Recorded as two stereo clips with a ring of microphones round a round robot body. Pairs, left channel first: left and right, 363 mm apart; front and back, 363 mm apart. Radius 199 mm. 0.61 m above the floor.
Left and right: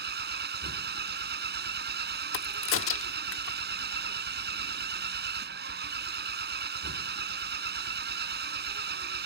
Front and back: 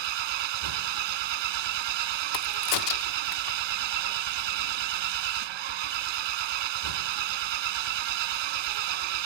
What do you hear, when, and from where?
0.0 s an engine running: 155° right
2.3 s a crack: 35° left